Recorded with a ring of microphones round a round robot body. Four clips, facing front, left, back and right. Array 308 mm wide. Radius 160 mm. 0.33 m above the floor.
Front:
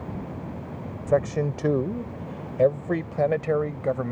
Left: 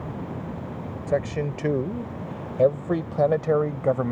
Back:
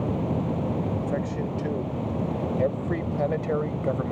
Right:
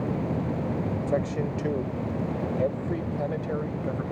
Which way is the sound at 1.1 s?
15° left.